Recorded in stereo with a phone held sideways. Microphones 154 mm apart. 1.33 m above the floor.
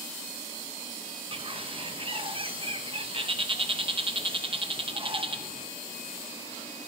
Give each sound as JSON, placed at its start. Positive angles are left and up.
{"t": 1.3, "sound": "a bird", "side_deg": -35, "distance_m": 0.8}